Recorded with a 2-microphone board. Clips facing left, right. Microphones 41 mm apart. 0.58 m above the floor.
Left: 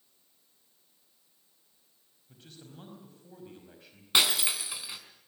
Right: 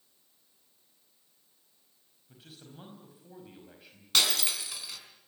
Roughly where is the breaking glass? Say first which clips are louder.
Left 1 dB; centre.